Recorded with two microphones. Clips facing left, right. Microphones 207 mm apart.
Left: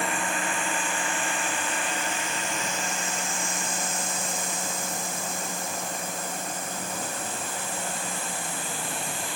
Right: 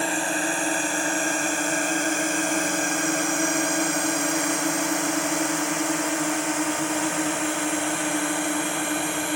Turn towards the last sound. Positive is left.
turn(degrees=-65)  # may be behind; listen again after turning